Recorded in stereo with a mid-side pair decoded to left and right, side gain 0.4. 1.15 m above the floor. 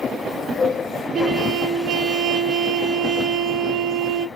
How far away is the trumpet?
About 1.0 m.